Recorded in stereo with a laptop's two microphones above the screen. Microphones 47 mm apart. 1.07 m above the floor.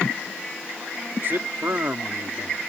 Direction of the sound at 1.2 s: 55° right (ahead or behind).